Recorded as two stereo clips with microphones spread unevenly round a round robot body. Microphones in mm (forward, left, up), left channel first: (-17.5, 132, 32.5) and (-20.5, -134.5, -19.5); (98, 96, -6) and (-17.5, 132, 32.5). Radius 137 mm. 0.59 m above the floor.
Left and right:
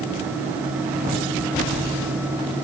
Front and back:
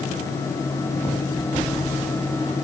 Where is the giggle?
I don't hear a giggle.